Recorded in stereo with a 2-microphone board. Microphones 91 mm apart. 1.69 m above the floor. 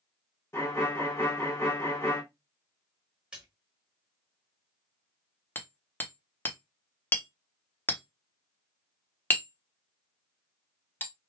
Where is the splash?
10° right (ahead or behind), 1.5 m.